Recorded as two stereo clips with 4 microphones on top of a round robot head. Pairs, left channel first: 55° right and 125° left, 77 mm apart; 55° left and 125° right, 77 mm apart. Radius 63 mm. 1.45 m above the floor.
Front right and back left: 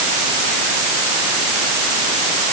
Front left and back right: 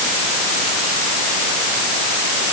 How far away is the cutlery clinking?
I don't hear cutlery clinking.